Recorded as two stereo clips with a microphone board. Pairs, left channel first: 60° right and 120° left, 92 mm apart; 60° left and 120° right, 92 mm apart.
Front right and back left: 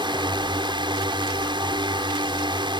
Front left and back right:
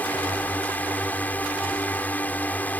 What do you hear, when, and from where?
0.0 s a drone: 130° left